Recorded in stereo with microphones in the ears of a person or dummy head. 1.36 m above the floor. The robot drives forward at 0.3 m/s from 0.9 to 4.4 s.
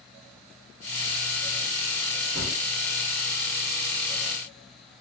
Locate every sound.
2.4 s a gunshot: 70° right (ahead or behind), 1.5 m; by 2.6 s 65° right (ahead or behind), 1.5 m